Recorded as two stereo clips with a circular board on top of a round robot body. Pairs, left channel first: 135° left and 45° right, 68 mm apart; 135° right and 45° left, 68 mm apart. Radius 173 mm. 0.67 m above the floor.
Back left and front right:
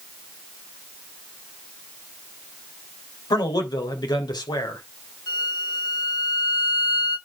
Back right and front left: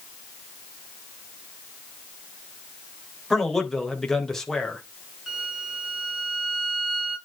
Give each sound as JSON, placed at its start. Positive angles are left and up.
{"t": 3.3, "sound": "a man speaking", "azimuth_deg": 140, "distance_m": 3.5}
{"t": 5.3, "sound": "a violin", "azimuth_deg": 130, "distance_m": 6.5}